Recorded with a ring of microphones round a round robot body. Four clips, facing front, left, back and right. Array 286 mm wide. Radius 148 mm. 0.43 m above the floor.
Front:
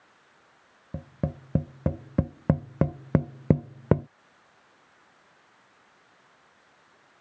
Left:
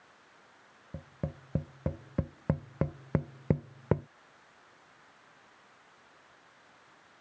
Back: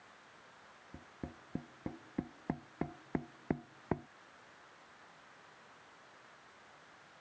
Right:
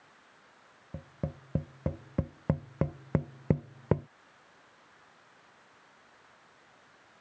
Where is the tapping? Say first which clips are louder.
Right 1 dB, front 15 dB; 5° right.